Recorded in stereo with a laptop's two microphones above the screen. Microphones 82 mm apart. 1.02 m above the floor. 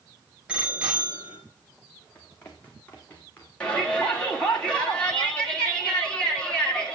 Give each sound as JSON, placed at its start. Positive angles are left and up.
{"t": 0.5, "sound": "a bicycle bell", "side_deg": -15, "distance_m": 3.5}
{"t": 2.1, "sound": "running footsteps", "side_deg": 15, "distance_m": 3.0}
{"t": 3.6, "sound": "a shout", "side_deg": 10, "distance_m": 3.5}